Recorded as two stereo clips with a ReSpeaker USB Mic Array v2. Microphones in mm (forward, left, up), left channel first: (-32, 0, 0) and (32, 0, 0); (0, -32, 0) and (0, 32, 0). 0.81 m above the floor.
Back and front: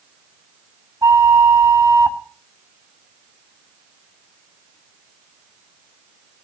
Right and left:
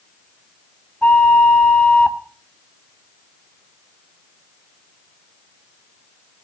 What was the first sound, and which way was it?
A flute, 20° right.